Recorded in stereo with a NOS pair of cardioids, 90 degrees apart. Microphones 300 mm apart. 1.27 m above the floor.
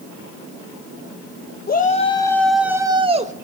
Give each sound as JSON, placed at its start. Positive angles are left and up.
{"t": 1.7, "sound": "a shout", "azimuth_deg": 30, "distance_m": 1.3}